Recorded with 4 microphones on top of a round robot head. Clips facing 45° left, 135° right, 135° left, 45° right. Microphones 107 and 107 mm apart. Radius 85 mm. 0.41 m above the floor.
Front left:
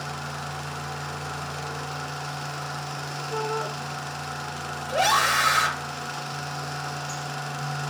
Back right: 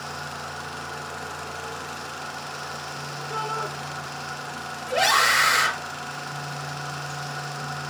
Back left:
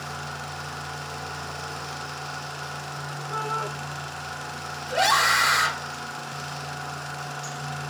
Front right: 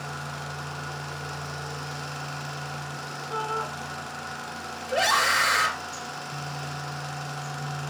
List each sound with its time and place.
3.3 s a shout: 130° right, 5 m
4.9 s a scream: 135° right, 8 m